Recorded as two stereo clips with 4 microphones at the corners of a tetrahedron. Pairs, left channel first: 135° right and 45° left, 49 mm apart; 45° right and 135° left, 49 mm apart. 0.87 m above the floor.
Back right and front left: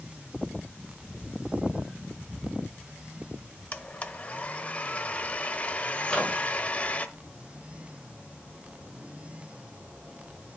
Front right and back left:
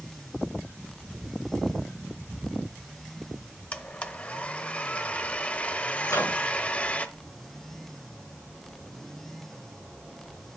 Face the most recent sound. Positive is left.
turn(degrees=-55)